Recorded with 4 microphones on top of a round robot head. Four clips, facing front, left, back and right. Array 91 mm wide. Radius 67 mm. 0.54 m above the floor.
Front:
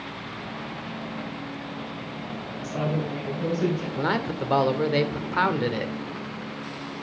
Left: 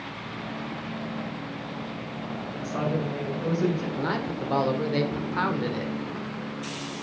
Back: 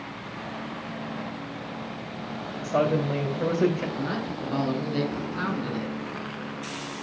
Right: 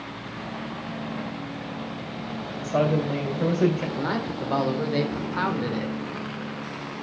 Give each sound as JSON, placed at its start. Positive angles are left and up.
{"t": 2.6, "sound": "a woman speaking", "azimuth_deg": -135, "distance_m": 2.5}
{"t": 4.0, "sound": "a man speaking", "azimuth_deg": 0, "distance_m": 2.0}